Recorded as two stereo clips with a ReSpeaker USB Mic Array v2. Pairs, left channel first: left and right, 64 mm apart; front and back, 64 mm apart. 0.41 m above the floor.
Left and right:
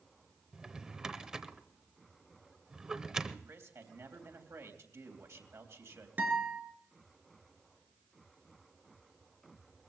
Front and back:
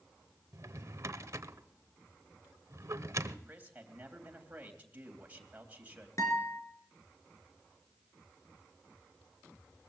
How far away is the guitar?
About 3 m.